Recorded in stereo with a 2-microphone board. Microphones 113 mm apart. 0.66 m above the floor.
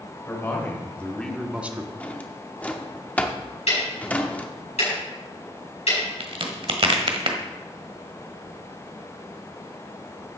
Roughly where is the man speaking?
Left.